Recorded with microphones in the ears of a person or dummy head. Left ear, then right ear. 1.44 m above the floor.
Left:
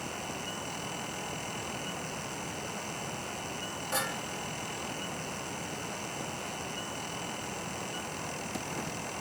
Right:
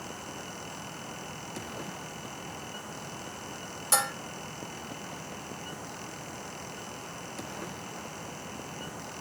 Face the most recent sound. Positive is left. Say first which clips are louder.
# right 5 dB
turn(degrees=-80)